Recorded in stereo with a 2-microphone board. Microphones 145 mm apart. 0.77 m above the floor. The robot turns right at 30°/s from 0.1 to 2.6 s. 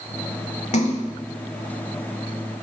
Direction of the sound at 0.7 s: 55° left (ahead or behind).